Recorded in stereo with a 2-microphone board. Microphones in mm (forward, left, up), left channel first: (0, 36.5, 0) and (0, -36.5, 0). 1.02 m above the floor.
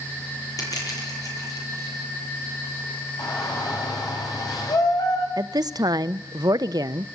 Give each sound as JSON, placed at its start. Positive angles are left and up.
{"t": 0.6, "sound": "crushing", "side_deg": 50, "distance_m": 8.5}
{"t": 3.2, "sound": "a shout", "side_deg": 60, "distance_m": 6.5}
{"t": 5.4, "sound": "a woman speaking", "side_deg": -60, "distance_m": 0.7}